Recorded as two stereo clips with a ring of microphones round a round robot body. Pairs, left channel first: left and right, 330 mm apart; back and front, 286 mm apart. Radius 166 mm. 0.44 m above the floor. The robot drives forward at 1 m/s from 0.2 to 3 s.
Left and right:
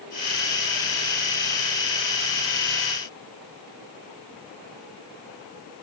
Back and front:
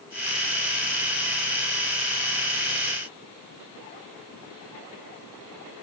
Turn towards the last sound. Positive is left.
No sound to turn to.